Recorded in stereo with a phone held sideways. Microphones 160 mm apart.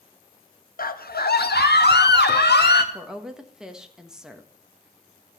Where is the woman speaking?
5° right (ahead or behind), 1.4 m.